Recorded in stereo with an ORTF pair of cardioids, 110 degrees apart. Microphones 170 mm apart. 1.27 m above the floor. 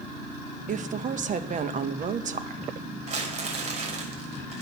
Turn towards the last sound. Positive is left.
turn(degrees=-45)